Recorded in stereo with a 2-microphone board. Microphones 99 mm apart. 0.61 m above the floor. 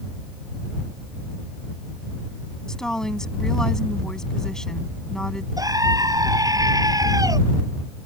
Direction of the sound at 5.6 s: 40° right (ahead or behind).